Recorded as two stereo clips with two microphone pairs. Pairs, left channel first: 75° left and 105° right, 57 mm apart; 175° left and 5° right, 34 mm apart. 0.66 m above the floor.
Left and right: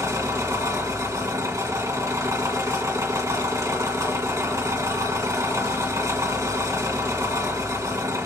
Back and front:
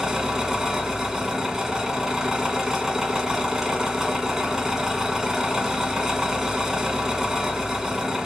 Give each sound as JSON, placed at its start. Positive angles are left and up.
{"t": 0.0, "sound": "an engine running", "azimuth_deg": -80, "distance_m": 1.9}